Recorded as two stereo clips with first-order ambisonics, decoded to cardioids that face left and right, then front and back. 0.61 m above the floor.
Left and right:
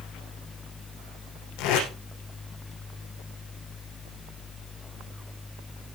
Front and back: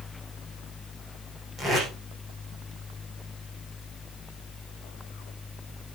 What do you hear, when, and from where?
1.6 s tape being pulled: 105° left, 6 m